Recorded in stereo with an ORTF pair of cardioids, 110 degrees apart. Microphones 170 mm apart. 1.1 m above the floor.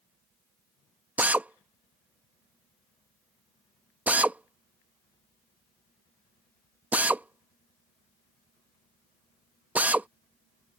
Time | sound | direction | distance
1.2 | a drill | 10° right | ?